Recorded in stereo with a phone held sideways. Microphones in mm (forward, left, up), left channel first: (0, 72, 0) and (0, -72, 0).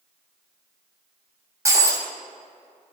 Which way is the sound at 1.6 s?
20° right (ahead or behind).